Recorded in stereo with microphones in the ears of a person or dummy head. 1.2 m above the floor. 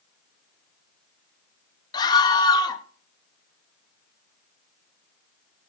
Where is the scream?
25° left (ahead or behind), 2.5 m.